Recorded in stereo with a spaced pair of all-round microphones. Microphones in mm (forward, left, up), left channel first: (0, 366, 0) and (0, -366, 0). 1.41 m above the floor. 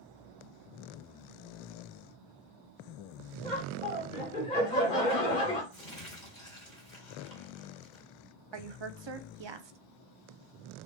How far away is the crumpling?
About 2.5 m.